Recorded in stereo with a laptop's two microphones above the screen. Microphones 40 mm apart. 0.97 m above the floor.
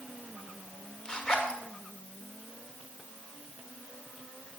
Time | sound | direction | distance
1.1 | a zipper | 20° left (ahead or behind) | 1.6 m